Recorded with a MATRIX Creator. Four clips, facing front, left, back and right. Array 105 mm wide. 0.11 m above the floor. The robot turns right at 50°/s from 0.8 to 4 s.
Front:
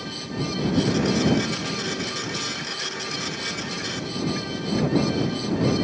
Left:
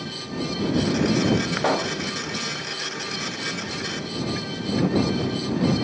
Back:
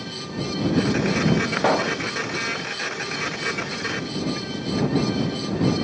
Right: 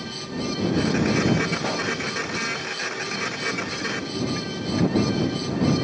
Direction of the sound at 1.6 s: 145° left.